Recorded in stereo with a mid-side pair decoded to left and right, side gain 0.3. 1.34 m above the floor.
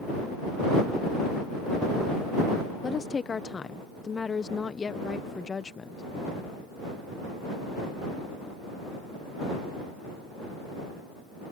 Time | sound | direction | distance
2.8 | a woman speaking | 50° left | ?